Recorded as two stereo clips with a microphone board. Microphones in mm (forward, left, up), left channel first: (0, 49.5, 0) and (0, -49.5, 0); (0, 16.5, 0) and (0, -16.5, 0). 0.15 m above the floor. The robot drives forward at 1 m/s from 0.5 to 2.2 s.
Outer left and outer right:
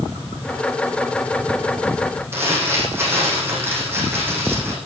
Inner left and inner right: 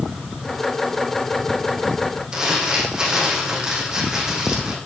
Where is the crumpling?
25° right (ahead or behind), 9.5 m.